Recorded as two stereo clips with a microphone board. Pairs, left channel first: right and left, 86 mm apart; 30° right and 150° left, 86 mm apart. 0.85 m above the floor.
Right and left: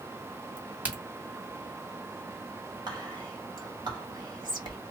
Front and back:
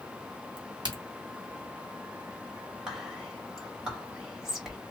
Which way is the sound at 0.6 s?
160° left.